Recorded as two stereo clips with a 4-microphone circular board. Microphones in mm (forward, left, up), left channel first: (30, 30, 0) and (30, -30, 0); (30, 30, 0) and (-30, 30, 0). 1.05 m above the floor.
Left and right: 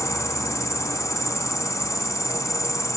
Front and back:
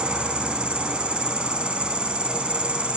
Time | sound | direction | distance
0.0 | an insect | 110° left | 2 m